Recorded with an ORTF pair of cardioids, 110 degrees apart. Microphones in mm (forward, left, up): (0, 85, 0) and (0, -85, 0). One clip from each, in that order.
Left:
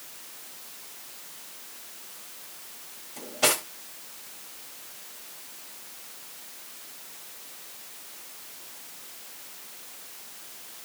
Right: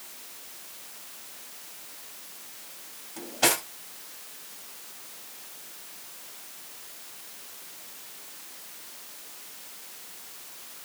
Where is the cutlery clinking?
5° right, 1.8 m.